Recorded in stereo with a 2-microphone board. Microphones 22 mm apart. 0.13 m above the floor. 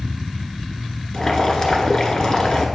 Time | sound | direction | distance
1.1 | boiling | 30° left (ahead or behind) | 1.2 m